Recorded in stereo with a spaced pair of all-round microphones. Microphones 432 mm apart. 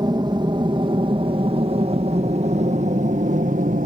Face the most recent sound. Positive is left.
turn(degrees=-20)  # may be behind; listen again after turning